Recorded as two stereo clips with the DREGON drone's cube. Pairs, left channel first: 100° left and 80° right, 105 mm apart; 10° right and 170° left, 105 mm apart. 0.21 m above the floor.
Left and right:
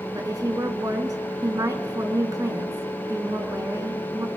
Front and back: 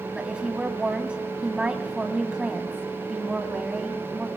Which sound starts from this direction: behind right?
A woman speaking, at 0.1 s.